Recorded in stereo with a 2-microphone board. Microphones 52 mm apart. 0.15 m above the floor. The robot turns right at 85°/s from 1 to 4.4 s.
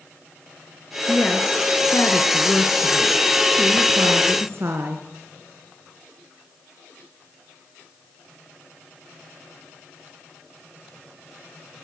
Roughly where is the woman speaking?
Ahead.